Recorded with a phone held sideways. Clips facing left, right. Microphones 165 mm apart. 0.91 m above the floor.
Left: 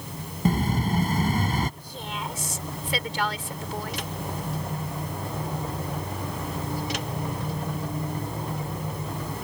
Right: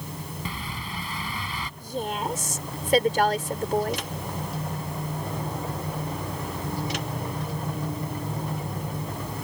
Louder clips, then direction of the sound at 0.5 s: Left 17 dB; 45° left (ahead or behind).